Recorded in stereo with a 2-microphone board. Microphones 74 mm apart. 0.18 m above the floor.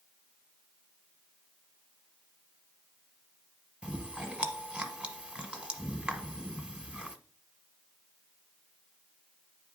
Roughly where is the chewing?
Centre.